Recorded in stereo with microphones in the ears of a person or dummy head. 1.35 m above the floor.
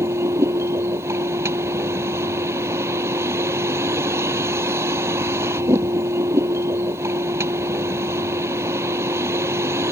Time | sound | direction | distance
0.0 | a vehicle | 10° right (ahead or behind) | ?